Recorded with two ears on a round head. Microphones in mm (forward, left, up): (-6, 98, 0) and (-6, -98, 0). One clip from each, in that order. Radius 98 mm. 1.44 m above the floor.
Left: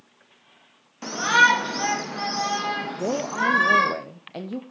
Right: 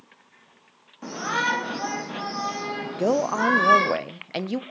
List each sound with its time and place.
1.0 s a shout: 80° left, 3 m; by 3.9 s 5° left (ahead or behind), 3 m
2.9 s a man speaking: 60° right (ahead or behind), 0.7 m